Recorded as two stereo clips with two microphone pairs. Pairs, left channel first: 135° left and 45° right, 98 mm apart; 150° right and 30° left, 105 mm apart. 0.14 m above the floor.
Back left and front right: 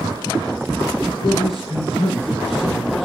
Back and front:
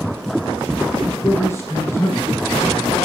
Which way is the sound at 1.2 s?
145° left.